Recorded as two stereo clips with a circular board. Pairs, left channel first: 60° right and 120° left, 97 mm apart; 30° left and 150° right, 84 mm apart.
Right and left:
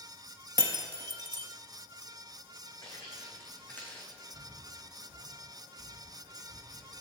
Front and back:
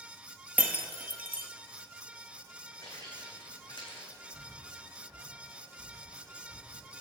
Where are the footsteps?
10° right, 2.5 m; by 4.1 s 15° left, 2.5 m.